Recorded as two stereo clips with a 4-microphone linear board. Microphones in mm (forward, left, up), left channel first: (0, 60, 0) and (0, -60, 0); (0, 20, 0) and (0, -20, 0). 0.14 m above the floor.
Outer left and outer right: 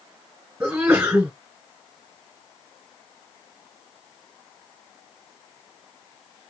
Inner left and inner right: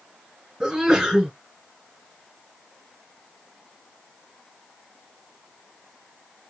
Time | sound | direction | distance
0.6 | a sneeze | 15° right (ahead or behind) | 1.8 m